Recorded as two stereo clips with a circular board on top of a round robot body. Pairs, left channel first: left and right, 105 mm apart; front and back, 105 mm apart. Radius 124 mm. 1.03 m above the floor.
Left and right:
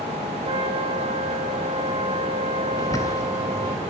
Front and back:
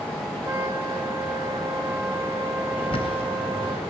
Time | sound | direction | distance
0.5 | a trumpet | 115° right | 5 m
2.8 | a bird | 30° left | 3.5 m